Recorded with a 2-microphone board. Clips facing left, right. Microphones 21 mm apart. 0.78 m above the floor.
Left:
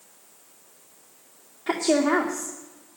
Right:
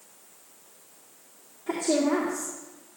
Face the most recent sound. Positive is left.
turn(degrees=65)  # may be behind; listen again after turning